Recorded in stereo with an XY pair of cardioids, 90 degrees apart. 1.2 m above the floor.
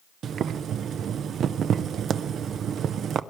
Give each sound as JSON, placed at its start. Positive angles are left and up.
{"t": 0.2, "sound": "boiling", "azimuth_deg": -70, "distance_m": 0.5}